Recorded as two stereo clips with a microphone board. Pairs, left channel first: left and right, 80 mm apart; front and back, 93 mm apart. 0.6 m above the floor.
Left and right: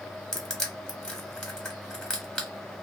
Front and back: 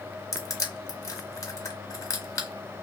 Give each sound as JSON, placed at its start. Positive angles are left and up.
{"t": 0.3, "sound": "crushing", "azimuth_deg": 20, "distance_m": 1.0}